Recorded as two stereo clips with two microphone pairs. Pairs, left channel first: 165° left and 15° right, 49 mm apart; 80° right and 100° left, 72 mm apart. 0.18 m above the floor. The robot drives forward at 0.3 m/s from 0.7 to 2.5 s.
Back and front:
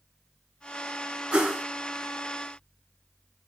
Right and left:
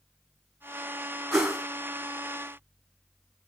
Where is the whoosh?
25° left, 1.0 m; by 1.6 s 30° left, 1.0 m.